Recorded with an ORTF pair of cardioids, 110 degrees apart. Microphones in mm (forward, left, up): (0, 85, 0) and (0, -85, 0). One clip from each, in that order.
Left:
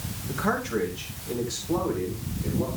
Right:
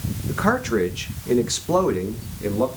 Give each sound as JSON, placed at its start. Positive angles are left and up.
{"t": 0.3, "sound": "a man speaking", "azimuth_deg": -40, "distance_m": 2.5}